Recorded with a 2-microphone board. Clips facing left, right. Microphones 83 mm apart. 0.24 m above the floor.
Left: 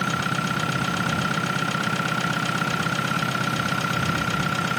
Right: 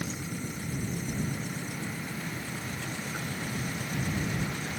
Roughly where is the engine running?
Left.